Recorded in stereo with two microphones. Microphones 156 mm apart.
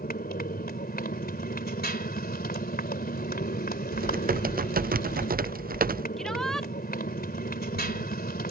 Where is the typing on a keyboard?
70° right (ahead or behind).